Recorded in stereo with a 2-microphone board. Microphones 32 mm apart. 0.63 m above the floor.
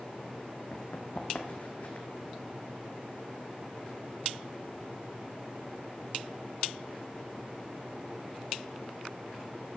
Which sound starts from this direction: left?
Running footsteps, at 0.7 s.